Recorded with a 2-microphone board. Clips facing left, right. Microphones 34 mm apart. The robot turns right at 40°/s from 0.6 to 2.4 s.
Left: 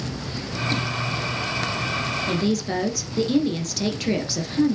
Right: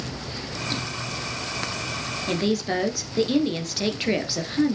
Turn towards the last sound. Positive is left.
turn(degrees=-20)  # may be behind; listen again after turning